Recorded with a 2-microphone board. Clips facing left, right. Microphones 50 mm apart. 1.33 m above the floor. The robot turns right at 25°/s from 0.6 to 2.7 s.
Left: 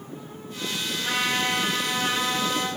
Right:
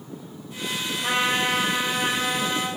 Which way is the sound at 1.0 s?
50° right.